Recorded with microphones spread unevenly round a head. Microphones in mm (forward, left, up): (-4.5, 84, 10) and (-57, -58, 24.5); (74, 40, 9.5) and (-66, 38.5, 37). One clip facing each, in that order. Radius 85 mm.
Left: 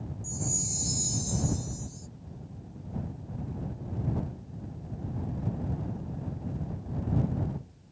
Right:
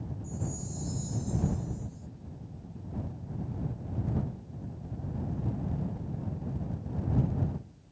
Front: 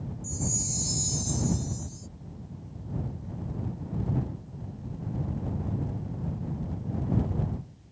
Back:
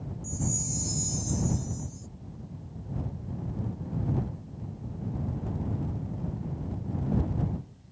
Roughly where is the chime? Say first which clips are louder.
Left 2 dB, back 2 dB; ahead left.